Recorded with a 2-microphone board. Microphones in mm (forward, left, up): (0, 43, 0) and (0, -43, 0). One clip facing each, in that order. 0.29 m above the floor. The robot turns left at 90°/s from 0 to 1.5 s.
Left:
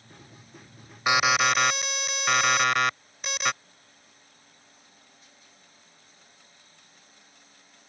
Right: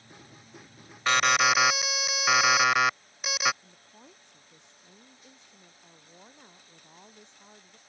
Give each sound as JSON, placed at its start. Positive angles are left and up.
{"t": 1.1, "sound": "an alarm", "side_deg": 15}
{"t": 3.6, "sound": "a woman speaking", "side_deg": -80}